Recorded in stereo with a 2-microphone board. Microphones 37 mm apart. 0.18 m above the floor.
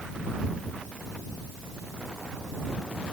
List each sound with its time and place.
Only background noise.